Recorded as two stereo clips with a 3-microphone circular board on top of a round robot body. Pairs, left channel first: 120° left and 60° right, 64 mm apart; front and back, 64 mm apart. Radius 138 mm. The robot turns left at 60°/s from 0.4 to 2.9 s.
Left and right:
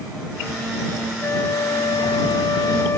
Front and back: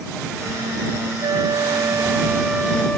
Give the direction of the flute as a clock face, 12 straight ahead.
6 o'clock.